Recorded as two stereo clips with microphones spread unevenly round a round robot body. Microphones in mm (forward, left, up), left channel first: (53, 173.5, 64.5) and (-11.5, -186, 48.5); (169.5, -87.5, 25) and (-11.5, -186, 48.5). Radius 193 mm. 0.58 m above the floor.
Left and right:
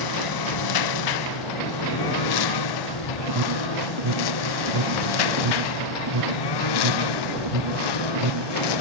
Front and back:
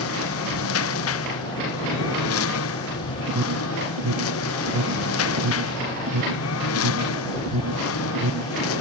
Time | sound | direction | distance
0.0 | a lawn mower | 50° left | ?
3.3 | an alarm | 145° right | ?